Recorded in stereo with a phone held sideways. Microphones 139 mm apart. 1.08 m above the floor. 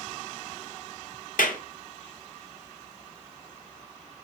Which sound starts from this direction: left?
A clap, at 1.4 s.